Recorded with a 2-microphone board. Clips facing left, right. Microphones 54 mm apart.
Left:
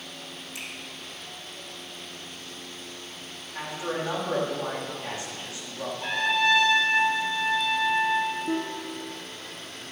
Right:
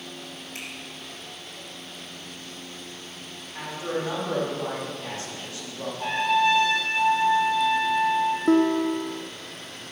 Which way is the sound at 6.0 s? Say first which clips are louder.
Right 3 dB; 35° right (ahead or behind).